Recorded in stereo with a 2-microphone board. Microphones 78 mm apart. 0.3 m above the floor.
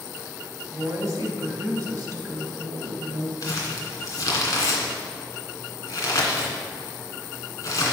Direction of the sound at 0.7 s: 45° right (ahead or behind).